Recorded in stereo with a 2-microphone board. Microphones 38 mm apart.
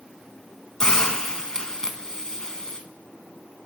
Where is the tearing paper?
No tearing paper in this recording.